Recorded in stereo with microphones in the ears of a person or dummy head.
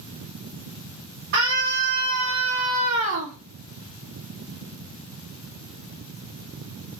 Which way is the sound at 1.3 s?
55° right (ahead or behind).